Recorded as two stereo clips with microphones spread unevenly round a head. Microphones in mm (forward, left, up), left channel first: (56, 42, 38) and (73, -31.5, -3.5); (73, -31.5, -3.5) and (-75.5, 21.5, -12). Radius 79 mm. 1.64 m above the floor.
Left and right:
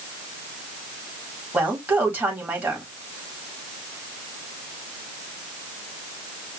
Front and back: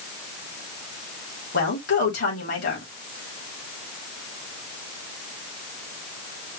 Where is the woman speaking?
5° right, 3.5 m.